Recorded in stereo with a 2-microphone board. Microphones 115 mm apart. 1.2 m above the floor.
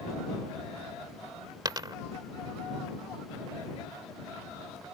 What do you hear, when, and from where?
1.6 s a dropped coin: 35° right (ahead or behind)